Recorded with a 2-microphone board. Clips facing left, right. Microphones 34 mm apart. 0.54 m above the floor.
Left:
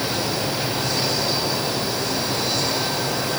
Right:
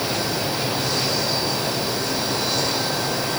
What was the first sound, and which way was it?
Only background noise.